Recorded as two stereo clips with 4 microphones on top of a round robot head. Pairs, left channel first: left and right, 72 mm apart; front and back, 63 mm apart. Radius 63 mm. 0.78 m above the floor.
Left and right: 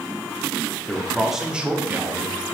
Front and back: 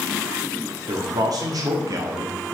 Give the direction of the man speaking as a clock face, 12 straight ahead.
6 o'clock.